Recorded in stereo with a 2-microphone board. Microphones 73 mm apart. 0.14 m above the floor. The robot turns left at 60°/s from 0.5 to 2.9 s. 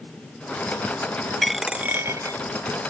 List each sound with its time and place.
1.4 s a dropped coin: 5° left; by 2.4 s 55° right